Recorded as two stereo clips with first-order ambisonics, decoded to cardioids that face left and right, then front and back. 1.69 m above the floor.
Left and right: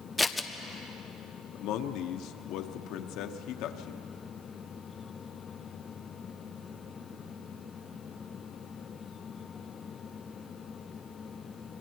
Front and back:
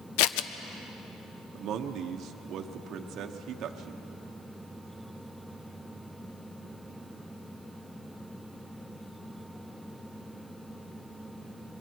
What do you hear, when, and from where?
0.2 s scissors: 5° left, 0.6 m
1.6 s a man speaking: 130° left, 1.0 m